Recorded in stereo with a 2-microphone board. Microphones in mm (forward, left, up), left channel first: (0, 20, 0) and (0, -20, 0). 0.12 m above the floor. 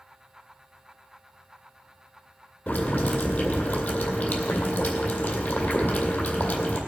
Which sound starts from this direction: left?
Boiling, at 2.7 s.